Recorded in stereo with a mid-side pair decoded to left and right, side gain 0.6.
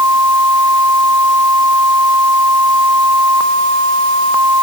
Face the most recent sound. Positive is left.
No sound to turn to.